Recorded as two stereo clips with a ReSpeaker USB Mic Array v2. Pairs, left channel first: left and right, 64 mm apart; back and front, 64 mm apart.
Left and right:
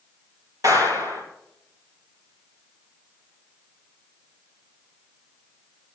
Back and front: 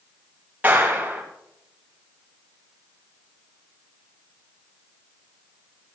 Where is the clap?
70° right, 6 m.